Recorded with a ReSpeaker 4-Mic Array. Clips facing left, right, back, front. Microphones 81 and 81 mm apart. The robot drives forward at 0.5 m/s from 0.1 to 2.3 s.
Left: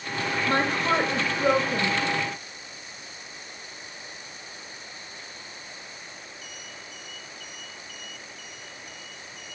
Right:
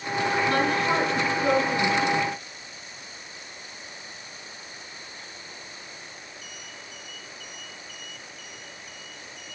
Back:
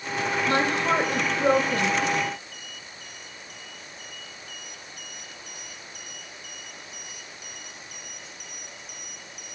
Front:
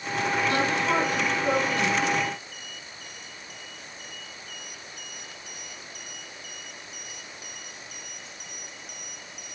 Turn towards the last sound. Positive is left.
turn(degrees=155)